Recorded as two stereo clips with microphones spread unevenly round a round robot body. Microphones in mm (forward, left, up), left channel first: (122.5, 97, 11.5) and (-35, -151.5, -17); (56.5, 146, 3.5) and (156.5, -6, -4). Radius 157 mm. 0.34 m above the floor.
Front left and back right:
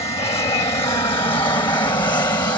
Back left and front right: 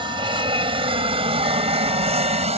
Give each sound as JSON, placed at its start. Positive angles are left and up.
{"t": 0.0, "sound": "an aircraft", "azimuth_deg": -10}